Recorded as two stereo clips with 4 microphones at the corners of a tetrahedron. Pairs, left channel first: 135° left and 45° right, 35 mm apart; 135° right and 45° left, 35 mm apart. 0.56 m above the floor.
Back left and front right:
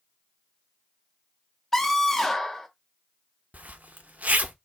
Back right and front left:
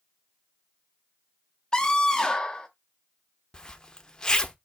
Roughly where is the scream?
Behind right.